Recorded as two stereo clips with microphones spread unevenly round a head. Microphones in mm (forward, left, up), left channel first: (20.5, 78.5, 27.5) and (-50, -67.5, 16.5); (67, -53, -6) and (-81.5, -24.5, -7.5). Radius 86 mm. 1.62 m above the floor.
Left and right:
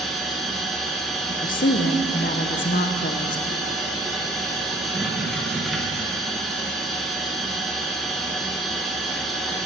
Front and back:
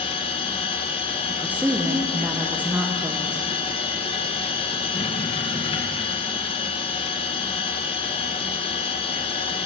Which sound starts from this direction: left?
A woman speaking, at 1.3 s.